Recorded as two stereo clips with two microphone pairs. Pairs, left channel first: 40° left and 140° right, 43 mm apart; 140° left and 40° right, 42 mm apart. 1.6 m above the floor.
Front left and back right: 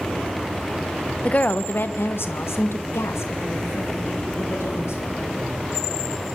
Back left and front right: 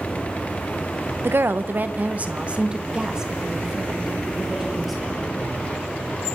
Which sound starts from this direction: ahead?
A woman speaking, at 1.2 s.